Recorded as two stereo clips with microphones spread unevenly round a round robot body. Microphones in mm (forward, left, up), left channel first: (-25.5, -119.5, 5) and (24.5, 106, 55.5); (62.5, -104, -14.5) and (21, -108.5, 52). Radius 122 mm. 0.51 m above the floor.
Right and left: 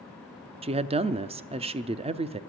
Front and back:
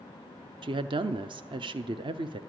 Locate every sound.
0.6 s a woman speaking: 135° left, 0.6 m